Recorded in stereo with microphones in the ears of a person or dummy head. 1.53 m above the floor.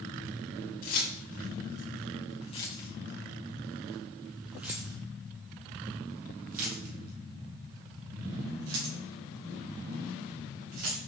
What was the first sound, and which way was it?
Keys jangling, 50° left (ahead or behind).